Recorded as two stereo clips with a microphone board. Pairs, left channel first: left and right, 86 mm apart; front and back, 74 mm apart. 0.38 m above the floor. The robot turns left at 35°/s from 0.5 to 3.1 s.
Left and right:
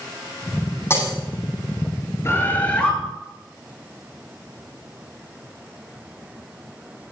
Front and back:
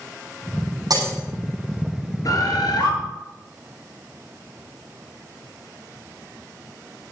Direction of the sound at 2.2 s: 35° left.